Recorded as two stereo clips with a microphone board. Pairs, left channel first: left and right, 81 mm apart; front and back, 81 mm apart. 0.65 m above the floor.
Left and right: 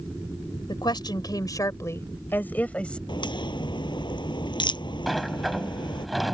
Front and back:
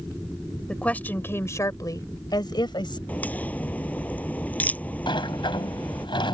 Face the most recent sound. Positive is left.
turn(degrees=0)